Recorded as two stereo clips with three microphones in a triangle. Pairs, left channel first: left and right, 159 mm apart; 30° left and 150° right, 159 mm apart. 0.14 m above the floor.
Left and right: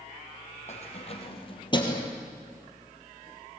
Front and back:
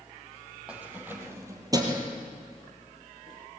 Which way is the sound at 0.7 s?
130° left.